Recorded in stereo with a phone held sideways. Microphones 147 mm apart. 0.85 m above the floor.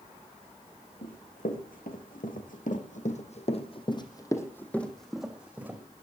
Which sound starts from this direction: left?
Running footsteps, at 1.0 s.